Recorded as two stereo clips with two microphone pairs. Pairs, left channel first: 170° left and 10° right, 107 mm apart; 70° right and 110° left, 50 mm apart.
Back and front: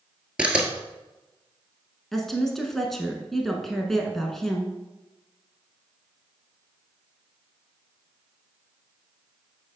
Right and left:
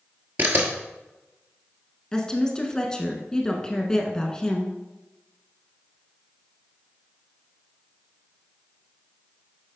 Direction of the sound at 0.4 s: 70° left.